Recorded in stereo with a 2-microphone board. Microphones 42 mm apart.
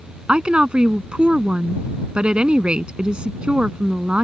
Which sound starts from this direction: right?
A woman speaking, at 0.3 s.